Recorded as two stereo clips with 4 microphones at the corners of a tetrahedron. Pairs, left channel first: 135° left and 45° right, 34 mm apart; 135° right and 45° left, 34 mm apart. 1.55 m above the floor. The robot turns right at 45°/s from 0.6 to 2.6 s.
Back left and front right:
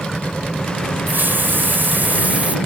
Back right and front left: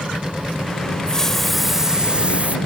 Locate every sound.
1.1 s a hiss: 70° right; by 2.6 s straight ahead